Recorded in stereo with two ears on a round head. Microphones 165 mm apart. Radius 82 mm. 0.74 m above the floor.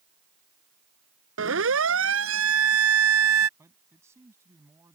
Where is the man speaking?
15° right (ahead or behind).